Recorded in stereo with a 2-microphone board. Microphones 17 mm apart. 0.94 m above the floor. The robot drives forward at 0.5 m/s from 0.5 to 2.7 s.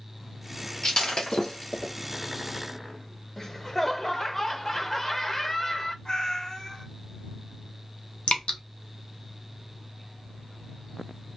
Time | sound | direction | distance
0.8 | breaking glass | 40° left (ahead or behind) | 1.5 m
3.4 | laughter | 25° left (ahead or behind) | 0.6 m
6.0 | a cat meowing | 50° left (ahead or behind) | 1.1 m
8.3 | dripping | 80° left | 0.6 m